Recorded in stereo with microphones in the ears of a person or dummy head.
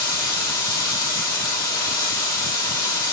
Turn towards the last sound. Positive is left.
turn(degrees=25)  # may be behind; listen again after turning